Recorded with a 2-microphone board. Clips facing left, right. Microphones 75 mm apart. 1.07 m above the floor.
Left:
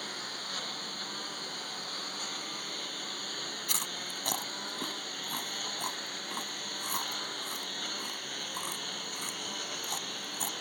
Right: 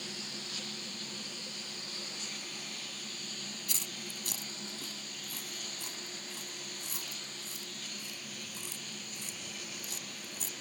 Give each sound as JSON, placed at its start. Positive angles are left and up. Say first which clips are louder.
{"t": 0.0, "sound": "a lawn mower", "louder": "left 4 dB", "side_deg": 50}
{"t": 3.7, "sound": "chewing", "louder": "left 5 dB", "side_deg": 60}